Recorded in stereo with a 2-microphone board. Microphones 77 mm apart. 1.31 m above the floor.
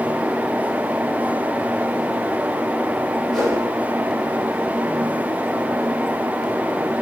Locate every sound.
3.3 s a whoosh: 5° left (ahead or behind), 3 m